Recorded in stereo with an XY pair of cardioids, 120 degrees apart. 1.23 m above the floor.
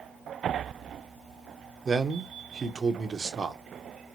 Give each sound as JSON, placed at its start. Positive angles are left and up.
{"t": 1.9, "sound": "a man speaking", "azimuth_deg": -30, "distance_m": 0.6}